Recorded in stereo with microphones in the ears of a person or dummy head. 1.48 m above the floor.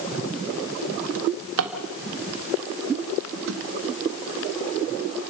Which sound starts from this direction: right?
A drawer, at 1.1 s.